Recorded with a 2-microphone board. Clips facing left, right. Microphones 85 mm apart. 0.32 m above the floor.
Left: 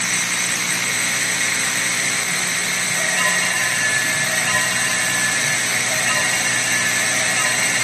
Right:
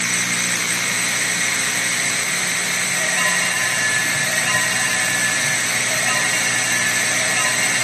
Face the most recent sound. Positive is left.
No sound to turn to.